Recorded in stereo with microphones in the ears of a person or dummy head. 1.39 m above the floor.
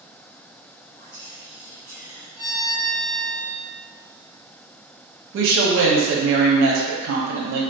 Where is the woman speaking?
60° right (ahead or behind), 0.5 m.